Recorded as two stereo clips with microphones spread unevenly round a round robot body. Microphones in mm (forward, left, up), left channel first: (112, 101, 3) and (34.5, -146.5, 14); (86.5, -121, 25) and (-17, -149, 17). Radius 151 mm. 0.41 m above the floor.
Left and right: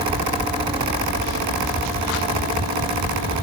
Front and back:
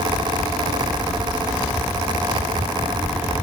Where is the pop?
No pop in this recording.